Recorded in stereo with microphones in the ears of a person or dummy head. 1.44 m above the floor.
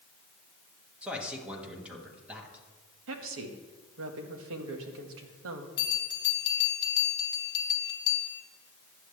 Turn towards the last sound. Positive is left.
turn(degrees=25)  # may be behind; listen again after turning